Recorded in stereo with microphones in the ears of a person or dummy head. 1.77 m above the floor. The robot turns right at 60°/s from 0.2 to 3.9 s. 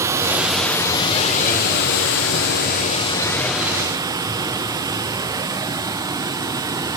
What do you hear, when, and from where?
0.0 s running water: 20° right, 0.9 m; by 7.0 s 160° right, 0.9 m